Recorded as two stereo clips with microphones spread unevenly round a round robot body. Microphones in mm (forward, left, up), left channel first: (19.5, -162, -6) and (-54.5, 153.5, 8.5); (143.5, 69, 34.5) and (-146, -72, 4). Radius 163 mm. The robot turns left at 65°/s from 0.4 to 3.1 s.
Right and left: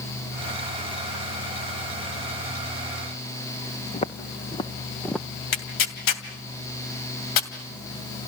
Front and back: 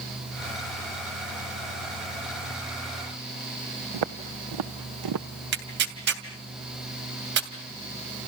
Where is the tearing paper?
100° right, 2.5 m.